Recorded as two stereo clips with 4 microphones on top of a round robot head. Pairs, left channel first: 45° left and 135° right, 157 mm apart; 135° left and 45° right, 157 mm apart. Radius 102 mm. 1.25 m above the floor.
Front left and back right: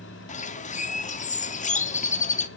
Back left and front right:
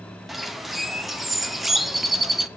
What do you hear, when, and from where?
0.3 s a bird: 45° left, 0.5 m